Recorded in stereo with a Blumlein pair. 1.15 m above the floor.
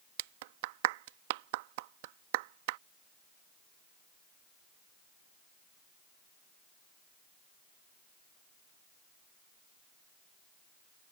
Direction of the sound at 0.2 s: 50° right.